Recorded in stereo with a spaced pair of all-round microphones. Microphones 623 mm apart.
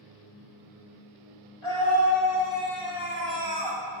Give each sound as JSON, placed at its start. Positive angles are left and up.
{"t": 1.6, "sound": "a scream", "side_deg": 50, "distance_m": 2.5}